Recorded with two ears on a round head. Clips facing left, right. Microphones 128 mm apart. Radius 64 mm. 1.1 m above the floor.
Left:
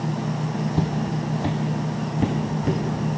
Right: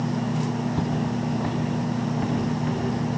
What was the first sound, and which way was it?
Footsteps, 15° left (ahead or behind).